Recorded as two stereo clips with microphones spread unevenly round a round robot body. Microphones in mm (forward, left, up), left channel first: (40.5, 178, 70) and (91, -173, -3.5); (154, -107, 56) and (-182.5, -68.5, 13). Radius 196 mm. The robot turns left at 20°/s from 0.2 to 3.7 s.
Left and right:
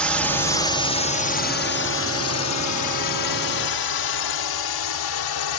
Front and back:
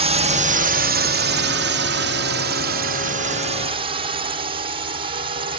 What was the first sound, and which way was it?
A drone, 155° right.